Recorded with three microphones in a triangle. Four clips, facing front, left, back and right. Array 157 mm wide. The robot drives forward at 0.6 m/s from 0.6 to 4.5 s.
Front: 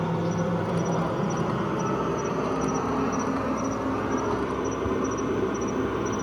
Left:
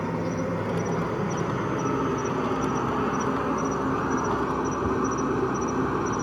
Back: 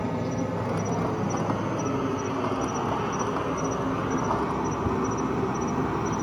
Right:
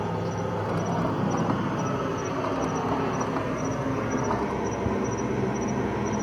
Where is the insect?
45° left, 3.5 m; by 6.2 s 95° left, 3 m.